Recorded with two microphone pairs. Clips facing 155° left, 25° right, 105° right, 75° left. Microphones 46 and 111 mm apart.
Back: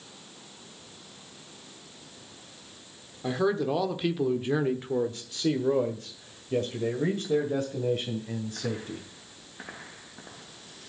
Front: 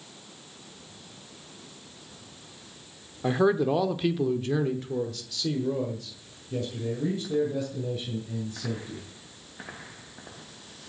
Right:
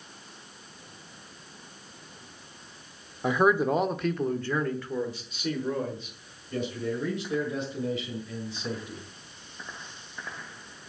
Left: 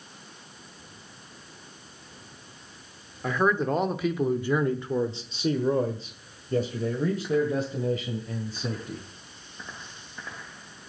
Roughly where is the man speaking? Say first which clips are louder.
Front 3 dB, right 2 dB; ahead right.